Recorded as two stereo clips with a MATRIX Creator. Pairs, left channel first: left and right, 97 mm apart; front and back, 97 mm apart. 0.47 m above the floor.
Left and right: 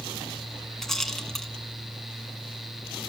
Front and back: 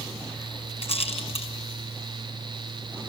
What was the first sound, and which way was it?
A rattle, 5° left.